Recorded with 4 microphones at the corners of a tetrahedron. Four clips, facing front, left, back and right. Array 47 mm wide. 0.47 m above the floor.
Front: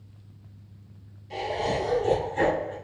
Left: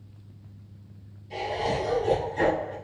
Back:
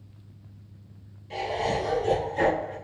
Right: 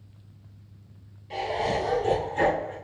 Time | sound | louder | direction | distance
1.3 | laughter | right 1 dB, even | 90° right | 2 m